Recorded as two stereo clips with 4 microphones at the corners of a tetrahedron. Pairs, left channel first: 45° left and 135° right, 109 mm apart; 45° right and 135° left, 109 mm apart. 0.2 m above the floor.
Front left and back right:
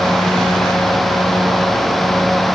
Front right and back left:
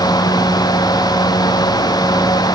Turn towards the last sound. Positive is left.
No sound to turn to.